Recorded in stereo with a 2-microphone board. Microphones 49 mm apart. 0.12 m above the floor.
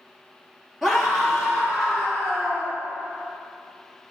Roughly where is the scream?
Centre.